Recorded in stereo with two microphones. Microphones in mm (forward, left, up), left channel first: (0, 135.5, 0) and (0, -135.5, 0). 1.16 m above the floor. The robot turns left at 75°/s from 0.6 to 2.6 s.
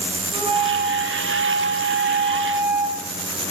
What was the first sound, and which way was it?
A flute, 25° right.